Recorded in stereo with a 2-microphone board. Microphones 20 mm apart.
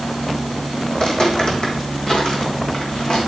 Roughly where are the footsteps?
Left.